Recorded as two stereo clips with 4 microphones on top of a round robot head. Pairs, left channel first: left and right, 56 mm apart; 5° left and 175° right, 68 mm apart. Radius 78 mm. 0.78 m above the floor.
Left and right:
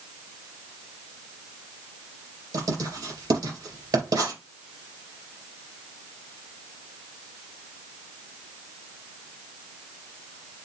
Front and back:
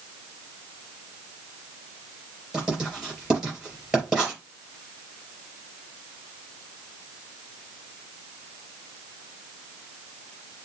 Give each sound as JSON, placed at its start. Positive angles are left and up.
{"t": 2.5, "sound": "writing", "azimuth_deg": -95, "distance_m": 3.5}